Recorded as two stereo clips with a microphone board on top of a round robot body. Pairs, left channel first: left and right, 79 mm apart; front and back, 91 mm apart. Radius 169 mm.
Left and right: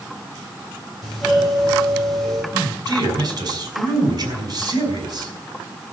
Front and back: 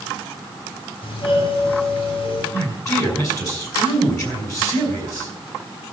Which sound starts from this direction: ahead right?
A man speaking, at 2.5 s.